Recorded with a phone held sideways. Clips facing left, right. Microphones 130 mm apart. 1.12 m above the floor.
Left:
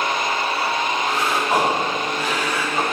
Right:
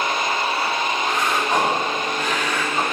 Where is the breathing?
5° left (ahead or behind), 2 m.